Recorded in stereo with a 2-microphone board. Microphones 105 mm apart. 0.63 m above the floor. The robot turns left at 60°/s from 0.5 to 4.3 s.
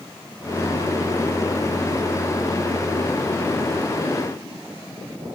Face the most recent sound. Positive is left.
No sound to turn to.